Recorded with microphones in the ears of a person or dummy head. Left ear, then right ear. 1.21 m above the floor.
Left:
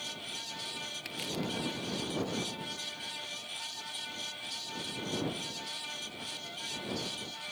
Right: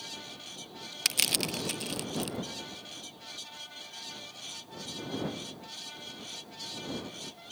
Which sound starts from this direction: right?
Crushing, at 1.1 s.